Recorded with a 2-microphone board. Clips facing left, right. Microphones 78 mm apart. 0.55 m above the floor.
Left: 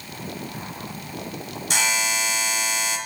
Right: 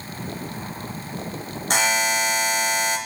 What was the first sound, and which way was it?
A buzzer, 45° right (ahead or behind).